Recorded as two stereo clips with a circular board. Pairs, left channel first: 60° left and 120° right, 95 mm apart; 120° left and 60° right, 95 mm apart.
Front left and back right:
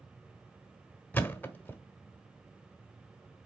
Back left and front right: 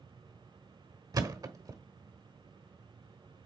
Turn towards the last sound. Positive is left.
turn(degrees=-10)